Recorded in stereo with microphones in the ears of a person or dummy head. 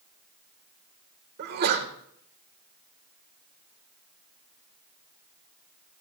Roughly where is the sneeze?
Right.